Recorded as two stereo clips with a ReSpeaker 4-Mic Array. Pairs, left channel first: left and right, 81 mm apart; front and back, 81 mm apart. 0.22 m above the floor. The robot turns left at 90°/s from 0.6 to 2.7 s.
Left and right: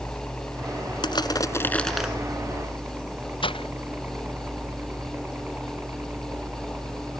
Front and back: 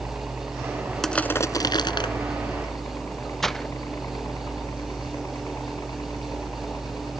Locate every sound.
0.0 s a helicopter: 140° left; by 7.2 s 30° right
1.0 s crushing: 85° left; by 2.1 s 10° right
3.4 s breaking glass: 85° left